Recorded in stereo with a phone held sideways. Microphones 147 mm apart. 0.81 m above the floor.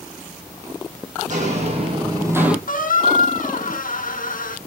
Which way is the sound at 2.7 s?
70° left (ahead or behind).